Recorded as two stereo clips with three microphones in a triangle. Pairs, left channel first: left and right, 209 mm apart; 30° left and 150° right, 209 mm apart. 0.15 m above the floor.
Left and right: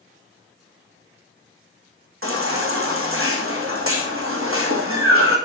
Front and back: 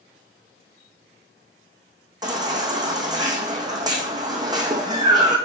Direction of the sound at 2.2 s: 75° right.